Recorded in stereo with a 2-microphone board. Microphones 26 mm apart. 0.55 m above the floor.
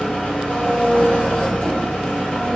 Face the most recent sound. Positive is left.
turn(degrees=60)  # may be behind; listen again after turning